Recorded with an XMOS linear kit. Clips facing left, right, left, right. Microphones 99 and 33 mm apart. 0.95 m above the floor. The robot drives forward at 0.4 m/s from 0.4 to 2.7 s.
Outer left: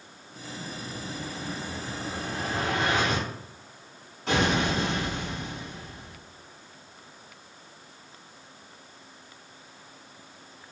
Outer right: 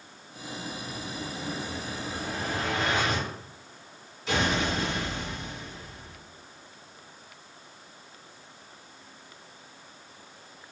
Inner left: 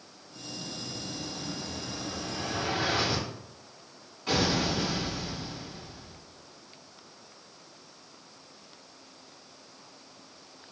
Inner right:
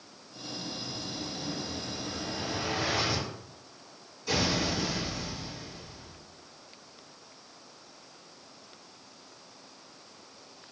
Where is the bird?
No bird in this recording.